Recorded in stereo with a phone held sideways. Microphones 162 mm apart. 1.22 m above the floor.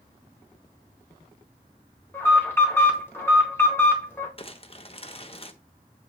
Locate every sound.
2.1 s an alarm: 15° left (ahead or behind), 3 m
4.4 s crumpling: 35° left (ahead or behind), 1.0 m